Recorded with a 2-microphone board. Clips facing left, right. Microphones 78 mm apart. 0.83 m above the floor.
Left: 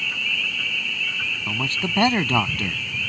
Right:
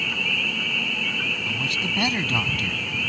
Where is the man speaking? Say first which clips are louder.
Left 1 dB; 35° left (ahead or behind).